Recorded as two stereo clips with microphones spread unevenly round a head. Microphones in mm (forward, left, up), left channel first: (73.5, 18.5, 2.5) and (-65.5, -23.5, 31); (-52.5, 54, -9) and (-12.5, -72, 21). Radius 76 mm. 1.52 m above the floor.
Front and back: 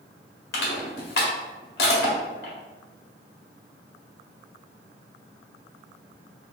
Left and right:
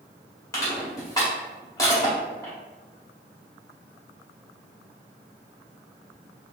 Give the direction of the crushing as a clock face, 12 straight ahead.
11 o'clock.